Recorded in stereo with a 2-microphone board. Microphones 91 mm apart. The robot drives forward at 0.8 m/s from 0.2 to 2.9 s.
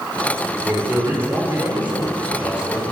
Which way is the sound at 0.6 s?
25° right (ahead or behind).